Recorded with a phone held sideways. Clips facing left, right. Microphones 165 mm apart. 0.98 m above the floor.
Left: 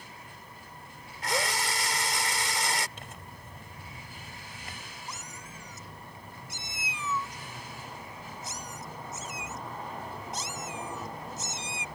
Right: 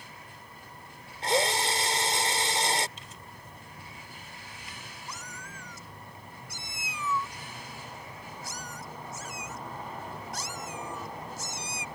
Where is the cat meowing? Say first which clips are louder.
Right 1 dB; 20° left (ahead or behind).